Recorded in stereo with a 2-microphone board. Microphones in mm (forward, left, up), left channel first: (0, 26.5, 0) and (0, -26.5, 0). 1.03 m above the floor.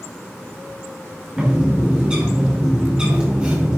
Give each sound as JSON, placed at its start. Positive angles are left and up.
{"t": 1.4, "sound": "a bird", "side_deg": -20, "distance_m": 3.5}